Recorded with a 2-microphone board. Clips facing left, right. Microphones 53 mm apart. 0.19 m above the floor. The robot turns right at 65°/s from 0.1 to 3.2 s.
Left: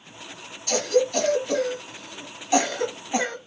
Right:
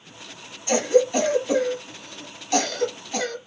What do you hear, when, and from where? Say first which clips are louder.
0.7 s a cough: right 3 dB; 25° right (ahead or behind), 1.1 m; by 3.4 s 25° left (ahead or behind), 1.1 m